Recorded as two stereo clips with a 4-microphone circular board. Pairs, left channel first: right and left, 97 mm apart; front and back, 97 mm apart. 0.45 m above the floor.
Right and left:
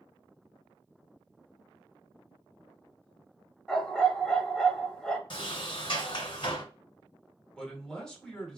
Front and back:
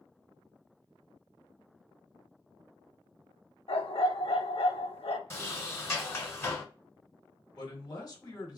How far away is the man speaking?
About 1.1 m.